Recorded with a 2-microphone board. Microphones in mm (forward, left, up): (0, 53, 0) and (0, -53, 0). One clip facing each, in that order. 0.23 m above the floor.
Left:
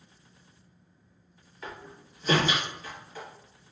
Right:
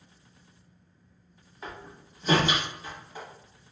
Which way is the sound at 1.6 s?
20° right (ahead or behind).